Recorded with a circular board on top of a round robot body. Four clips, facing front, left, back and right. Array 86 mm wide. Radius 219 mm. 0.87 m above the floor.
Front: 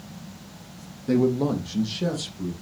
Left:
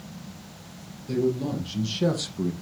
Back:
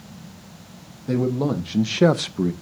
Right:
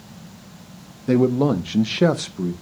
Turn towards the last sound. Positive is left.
turn(degrees=180)